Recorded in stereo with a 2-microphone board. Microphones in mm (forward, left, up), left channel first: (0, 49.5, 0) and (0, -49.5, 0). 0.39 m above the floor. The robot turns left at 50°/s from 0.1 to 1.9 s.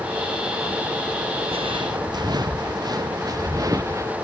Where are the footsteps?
70° right (ahead or behind); by 4.1 s 30° right (ahead or behind).